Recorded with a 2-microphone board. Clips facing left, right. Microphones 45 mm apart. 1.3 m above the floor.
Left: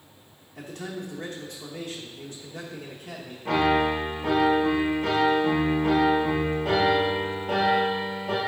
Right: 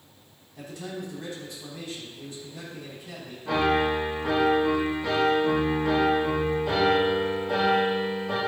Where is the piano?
75° left (ahead or behind), 4.5 m.